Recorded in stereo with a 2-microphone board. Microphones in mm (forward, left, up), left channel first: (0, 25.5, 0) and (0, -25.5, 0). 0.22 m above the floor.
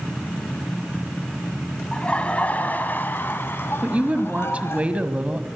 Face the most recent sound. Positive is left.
turn(degrees=-30)  # may be behind; listen again after turning